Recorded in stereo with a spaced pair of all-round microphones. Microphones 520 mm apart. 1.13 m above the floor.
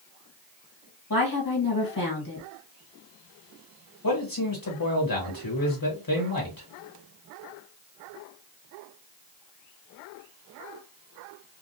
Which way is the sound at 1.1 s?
40° left (ahead or behind).